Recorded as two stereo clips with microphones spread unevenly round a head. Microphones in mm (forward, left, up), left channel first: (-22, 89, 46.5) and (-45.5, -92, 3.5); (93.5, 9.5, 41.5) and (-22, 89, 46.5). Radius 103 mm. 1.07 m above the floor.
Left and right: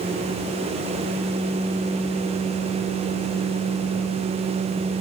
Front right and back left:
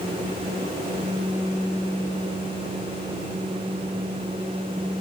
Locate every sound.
Only background noise.